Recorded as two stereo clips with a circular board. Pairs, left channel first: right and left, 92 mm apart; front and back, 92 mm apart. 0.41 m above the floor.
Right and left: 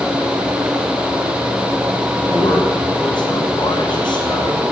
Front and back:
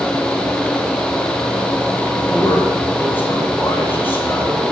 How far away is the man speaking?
About 3.5 m.